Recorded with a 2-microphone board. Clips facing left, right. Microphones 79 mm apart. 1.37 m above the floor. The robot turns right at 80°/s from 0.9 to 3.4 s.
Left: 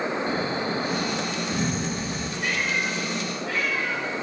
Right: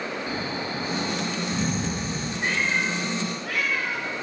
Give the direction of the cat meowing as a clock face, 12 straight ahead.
5 o'clock.